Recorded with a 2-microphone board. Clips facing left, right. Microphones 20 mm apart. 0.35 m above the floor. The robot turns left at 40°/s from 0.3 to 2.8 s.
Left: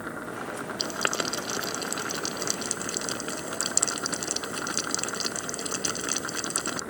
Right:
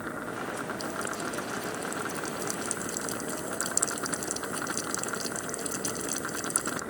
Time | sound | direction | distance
0.8 | boiling | 60° left (ahead or behind) | ?